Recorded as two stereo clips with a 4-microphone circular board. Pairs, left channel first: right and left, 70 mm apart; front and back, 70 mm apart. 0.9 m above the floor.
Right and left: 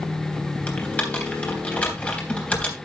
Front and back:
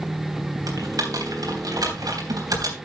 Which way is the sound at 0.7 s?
160° right.